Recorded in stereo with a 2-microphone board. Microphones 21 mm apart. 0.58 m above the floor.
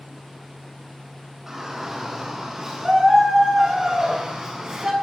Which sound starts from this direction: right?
A shout, at 1.5 s.